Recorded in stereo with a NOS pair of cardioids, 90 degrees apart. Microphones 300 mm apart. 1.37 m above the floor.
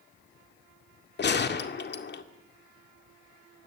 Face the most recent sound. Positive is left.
turn(degrees=35)